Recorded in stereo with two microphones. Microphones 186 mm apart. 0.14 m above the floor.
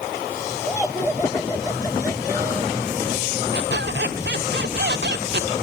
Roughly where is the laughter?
Centre.